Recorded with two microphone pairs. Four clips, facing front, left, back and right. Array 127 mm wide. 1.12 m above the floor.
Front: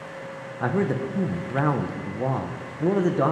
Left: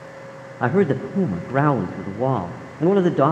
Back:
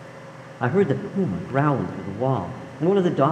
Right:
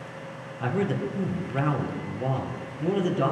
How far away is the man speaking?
About 0.7 m.